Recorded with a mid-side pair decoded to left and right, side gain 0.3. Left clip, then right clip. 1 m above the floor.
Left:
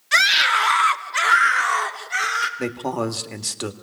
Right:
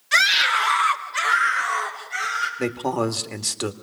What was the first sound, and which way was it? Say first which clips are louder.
A scream: left 1 dB; 20° left.